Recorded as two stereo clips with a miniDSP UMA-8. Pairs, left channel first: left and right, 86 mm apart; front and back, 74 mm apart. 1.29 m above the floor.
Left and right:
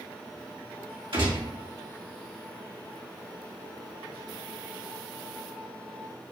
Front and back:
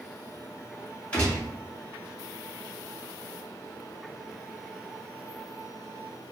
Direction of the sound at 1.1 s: 70° right.